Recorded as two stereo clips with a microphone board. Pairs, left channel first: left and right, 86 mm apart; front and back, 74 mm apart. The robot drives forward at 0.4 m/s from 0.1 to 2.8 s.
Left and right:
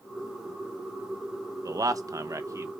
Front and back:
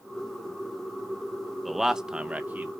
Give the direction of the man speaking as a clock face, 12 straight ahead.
3 o'clock.